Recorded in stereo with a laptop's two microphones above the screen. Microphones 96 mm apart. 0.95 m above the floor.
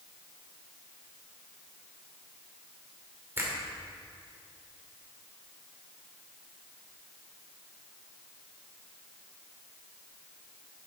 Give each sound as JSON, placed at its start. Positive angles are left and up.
{"t": 3.4, "sound": "a finger snap", "side_deg": -20, "distance_m": 2.5}